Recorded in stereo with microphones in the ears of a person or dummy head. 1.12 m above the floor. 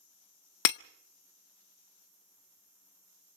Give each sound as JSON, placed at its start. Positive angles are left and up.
{"t": 0.7, "sound": "breaking glass", "side_deg": 50, "distance_m": 0.5}